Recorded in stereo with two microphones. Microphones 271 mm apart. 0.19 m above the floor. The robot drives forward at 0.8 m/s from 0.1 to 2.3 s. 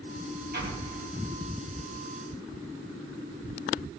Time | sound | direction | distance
0.5 | an explosion | 40° right (ahead or behind) | 3 m